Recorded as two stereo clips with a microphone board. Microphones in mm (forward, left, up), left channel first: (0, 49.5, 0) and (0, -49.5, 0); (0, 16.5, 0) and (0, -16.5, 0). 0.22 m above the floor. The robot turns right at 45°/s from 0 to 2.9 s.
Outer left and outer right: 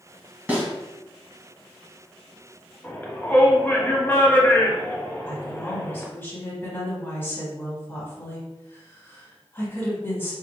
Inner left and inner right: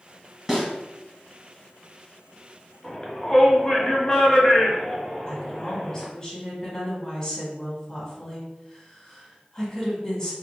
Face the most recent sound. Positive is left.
turn(degrees=20)  # may be behind; listen again after turning